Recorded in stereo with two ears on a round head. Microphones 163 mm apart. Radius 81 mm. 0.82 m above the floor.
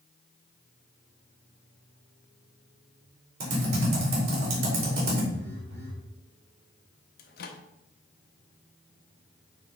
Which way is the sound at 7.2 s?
55° left (ahead or behind).